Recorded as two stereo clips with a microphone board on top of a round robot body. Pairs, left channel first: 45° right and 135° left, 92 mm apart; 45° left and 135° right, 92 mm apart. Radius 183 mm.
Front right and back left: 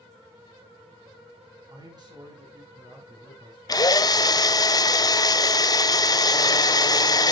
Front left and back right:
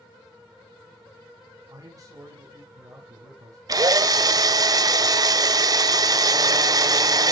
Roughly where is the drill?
Right.